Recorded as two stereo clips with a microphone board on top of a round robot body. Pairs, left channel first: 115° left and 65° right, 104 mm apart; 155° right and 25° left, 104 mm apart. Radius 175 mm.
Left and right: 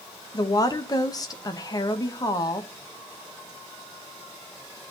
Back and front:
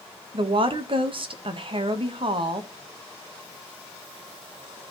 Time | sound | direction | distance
0.3 | a woman speaking | 60° left | 1.4 m